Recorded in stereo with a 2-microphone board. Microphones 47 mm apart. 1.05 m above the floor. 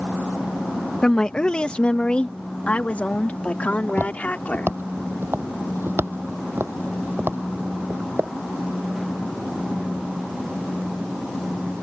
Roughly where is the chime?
I don't hear a chime.